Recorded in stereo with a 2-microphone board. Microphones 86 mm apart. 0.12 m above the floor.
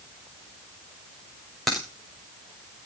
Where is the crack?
Centre (ahead or behind), 6 m.